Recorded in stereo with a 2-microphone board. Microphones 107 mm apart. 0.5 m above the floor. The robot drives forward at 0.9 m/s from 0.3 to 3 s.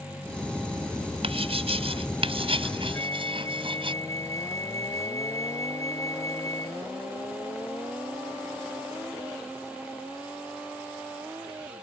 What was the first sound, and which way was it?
Writing, 70° right (ahead or behind).